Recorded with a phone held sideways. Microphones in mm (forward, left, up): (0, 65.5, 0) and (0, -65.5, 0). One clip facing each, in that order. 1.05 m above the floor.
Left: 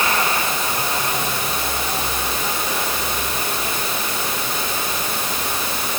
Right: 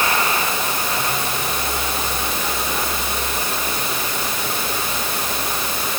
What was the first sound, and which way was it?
Only background noise.